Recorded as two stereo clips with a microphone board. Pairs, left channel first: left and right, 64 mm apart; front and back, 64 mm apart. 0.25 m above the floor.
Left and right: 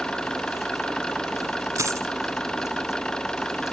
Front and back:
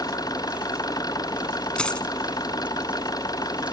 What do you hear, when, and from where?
0.0 s an engine running: 10° left
1.8 s a dropped coin: 70° right